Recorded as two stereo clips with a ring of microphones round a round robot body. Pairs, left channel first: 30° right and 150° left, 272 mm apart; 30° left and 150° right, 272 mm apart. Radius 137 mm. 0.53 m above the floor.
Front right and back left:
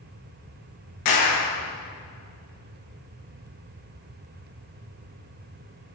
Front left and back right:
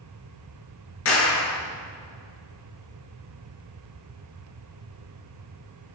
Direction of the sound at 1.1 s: 15° right.